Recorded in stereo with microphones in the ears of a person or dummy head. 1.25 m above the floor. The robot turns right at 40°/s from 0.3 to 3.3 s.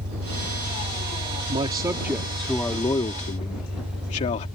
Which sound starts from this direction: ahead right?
A man speaking, at 1.5 s.